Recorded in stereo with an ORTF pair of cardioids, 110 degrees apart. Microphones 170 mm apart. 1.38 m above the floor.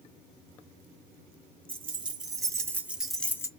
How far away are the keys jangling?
About 1.1 m.